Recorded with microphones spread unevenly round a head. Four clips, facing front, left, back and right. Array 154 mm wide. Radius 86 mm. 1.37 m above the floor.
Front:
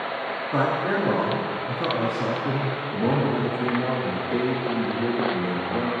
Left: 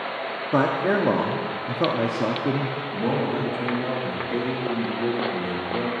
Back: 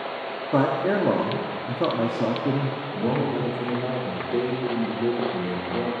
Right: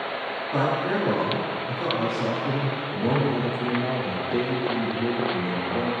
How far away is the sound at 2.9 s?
About 2.5 m.